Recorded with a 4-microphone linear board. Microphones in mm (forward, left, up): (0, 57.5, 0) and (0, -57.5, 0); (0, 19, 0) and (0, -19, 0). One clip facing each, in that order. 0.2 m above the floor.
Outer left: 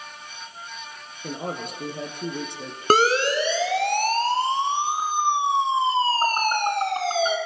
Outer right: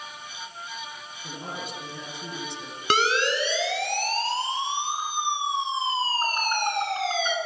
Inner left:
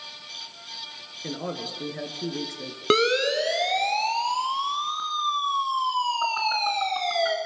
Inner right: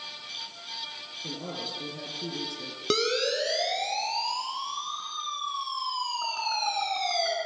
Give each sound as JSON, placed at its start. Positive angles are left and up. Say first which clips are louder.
{"t": 1.2, "sound": "a man speaking", "louder": "outer left 6 dB, inner left 5 dB", "side_deg": 50, "distance_m": 3.0}
{"t": 2.9, "sound": "a siren", "louder": "outer left 5 dB, inner left 6 dB", "side_deg": 40, "distance_m": 2.5}